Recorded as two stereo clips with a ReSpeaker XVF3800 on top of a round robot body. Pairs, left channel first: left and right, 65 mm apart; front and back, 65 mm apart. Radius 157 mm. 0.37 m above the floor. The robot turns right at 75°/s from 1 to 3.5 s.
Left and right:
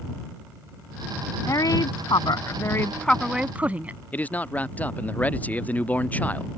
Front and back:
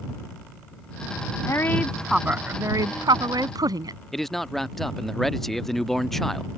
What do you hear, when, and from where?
1.5 s a woman speaking: 45° left; by 4.0 s 160° right
4.1 s a man speaking: 80° left